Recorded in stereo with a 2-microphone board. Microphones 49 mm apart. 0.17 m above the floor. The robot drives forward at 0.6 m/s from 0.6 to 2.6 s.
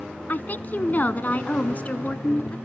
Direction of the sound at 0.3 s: 40° left (ahead or behind).